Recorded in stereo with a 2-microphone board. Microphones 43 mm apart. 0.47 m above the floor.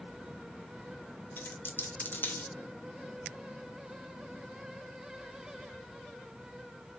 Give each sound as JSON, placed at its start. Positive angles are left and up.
{"t": 1.4, "sound": "a dropped coin", "side_deg": 60, "distance_m": 0.5}